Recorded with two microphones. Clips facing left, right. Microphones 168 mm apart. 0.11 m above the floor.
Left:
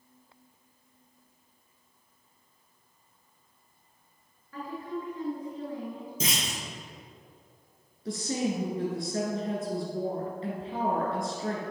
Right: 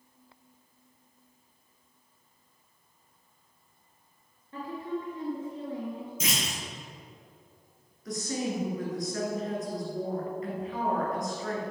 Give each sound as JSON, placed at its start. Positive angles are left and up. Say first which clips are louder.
{"t": 4.5, "sound": "a woman speaking", "louder": "right 1 dB", "side_deg": -25, "distance_m": 1.4}
{"t": 6.2, "sound": "a clunk", "louder": "left 2 dB", "side_deg": 35, "distance_m": 2.0}
{"t": 8.1, "sound": "a woman speaking", "louder": "left 2 dB", "side_deg": 30, "distance_m": 1.4}